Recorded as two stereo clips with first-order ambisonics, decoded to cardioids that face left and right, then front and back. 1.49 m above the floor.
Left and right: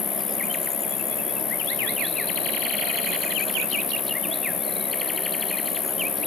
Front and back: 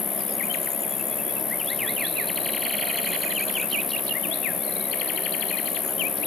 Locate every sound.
0.0 s an insect: 50° left, 1.0 m